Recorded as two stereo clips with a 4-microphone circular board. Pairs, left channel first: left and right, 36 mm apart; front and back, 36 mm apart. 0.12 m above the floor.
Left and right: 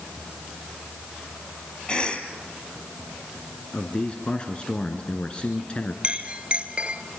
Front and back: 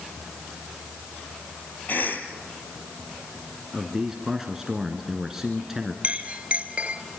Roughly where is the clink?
Behind right.